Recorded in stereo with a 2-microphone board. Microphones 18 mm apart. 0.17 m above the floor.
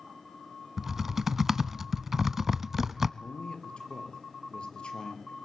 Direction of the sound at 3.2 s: 65° left (ahead or behind).